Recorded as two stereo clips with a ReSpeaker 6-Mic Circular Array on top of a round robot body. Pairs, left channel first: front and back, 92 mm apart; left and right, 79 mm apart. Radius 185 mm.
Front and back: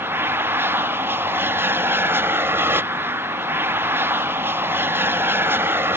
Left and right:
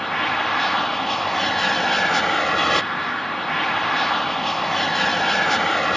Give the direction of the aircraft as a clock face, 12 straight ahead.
6 o'clock.